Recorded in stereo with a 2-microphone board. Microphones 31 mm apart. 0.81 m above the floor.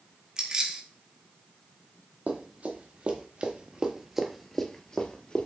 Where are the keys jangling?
25° right (ahead or behind), 0.9 m.